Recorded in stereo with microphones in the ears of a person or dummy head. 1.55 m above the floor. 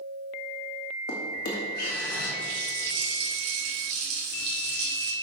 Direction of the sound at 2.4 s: 70° right (ahead or behind).